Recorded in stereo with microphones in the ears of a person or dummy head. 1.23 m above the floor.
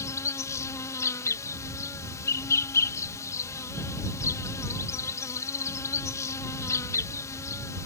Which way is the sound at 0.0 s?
15° left (ahead or behind).